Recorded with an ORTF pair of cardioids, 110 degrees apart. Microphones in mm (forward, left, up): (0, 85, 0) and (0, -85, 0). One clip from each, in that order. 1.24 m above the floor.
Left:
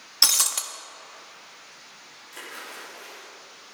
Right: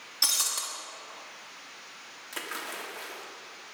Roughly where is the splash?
Ahead right.